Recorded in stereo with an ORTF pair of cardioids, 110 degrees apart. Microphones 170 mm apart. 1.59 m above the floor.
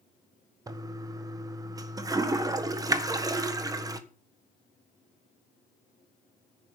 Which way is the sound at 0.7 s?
20° right.